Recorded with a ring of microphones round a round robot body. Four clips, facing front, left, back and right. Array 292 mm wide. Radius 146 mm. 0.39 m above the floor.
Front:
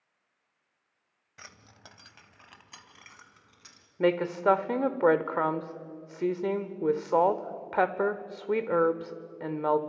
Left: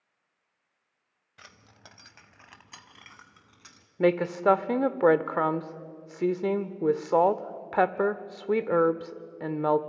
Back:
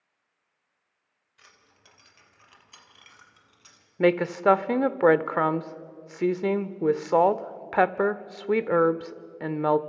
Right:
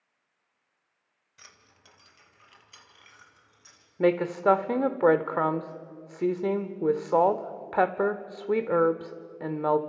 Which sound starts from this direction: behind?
A woman speaking, at 4.0 s.